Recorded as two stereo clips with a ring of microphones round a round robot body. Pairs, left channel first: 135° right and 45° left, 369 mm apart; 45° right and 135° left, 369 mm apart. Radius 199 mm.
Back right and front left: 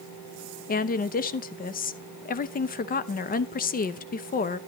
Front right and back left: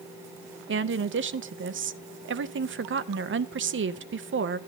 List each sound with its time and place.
0.7 s a woman speaking: 170° left, 0.8 m